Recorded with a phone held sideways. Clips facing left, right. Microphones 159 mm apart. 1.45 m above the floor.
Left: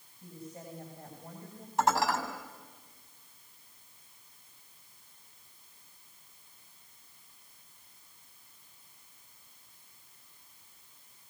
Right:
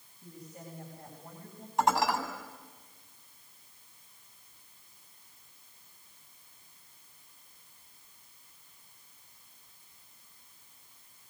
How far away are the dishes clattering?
About 7.5 m.